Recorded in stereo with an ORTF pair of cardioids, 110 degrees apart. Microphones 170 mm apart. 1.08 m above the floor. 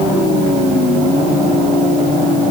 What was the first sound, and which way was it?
Only background noise.